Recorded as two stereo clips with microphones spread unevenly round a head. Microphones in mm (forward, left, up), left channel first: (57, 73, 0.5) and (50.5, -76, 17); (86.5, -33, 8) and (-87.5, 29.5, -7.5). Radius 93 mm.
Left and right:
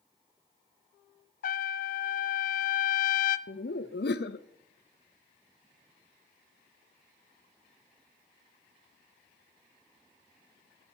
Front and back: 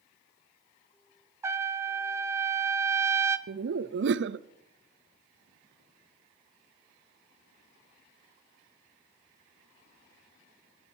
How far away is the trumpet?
About 0.5 m.